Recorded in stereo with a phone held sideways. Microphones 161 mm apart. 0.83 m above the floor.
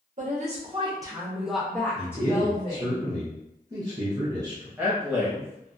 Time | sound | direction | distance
0.2 | a woman speaking | 55° right (ahead or behind) | 0.8 m
1.9 | a man speaking | 25° right (ahead or behind) | 0.8 m
4.8 | a man speaking | 15° right (ahead or behind) | 1.1 m